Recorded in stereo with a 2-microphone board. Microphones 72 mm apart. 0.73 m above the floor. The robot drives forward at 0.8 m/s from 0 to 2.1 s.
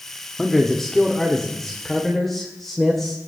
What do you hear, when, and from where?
0.4 s a man speaking: 5° left (ahead or behind), 1.3 m